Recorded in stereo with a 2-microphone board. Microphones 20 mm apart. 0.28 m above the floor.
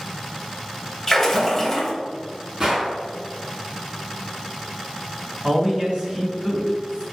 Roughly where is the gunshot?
Right.